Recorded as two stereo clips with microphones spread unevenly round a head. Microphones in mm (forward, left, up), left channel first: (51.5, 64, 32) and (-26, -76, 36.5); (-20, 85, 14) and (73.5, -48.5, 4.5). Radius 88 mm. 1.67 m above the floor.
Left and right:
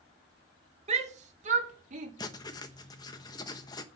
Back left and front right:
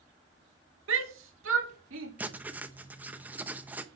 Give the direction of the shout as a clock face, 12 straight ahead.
2 o'clock.